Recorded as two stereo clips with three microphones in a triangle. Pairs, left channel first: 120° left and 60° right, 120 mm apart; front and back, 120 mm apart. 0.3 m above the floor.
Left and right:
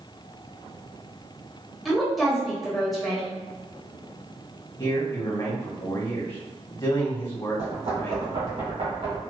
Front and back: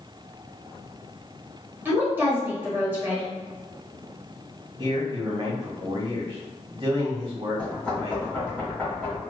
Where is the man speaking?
165° left, 1.4 m.